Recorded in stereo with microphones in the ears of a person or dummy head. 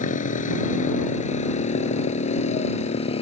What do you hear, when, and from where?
0.0 s a motorcycle: 50° left (ahead or behind); by 3.2 s 40° left (ahead or behind)